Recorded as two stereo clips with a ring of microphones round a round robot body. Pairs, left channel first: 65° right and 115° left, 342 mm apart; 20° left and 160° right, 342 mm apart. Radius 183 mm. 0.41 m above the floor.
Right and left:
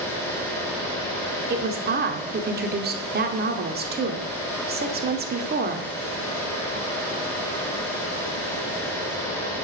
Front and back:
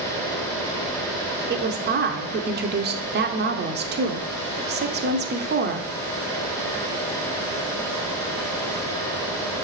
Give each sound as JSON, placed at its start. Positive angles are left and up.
{"t": 1.5, "sound": "a woman speaking", "azimuth_deg": 160, "distance_m": 0.9}